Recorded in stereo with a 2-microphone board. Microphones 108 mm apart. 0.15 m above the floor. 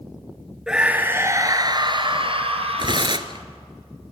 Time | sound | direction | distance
0.7 | a scream | 5° right (ahead or behind) | 2 m
2.8 | tearing paper | 45° right (ahead or behind) | 1.1 m